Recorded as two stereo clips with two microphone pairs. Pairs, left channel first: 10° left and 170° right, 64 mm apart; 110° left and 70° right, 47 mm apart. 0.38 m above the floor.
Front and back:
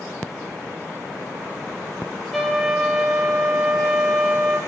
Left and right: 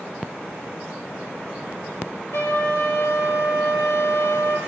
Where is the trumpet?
100° left, 3 m.